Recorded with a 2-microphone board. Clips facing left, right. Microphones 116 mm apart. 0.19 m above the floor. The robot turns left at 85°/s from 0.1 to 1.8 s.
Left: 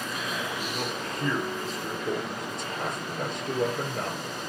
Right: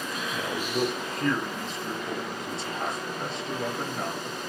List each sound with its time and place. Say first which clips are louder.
0.3 s a man speaking: right 5 dB; 105° right, 4 m; by 4.4 s 125° left, 4 m